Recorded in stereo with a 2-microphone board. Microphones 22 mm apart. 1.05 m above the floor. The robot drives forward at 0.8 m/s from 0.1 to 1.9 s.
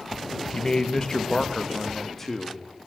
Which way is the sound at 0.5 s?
45° left (ahead or behind).